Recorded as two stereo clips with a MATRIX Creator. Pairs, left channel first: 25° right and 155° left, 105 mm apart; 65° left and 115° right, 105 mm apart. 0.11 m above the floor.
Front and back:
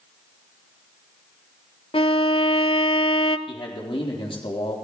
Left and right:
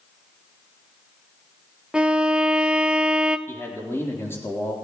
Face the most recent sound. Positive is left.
turn(degrees=0)